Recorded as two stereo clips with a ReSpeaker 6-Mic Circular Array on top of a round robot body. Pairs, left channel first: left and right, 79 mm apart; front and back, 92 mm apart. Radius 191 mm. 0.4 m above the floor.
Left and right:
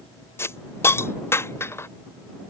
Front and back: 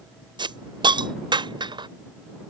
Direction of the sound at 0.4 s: 145° left.